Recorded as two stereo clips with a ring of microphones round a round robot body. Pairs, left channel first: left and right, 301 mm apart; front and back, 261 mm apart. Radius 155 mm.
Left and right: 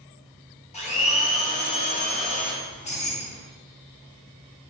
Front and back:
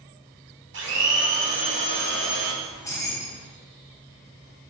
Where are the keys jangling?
60° left, 0.8 m.